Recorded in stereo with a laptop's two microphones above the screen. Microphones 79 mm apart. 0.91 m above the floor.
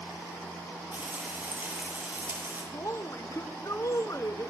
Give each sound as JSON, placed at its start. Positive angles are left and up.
{"t": 0.9, "sound": "frying", "side_deg": -25, "distance_m": 8.0}
{"t": 2.7, "sound": "a woman speaking", "side_deg": 40, "distance_m": 1.0}